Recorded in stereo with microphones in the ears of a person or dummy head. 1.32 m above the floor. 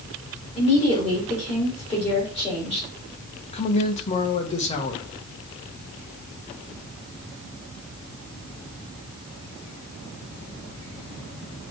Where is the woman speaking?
40° left (ahead or behind), 4.5 m.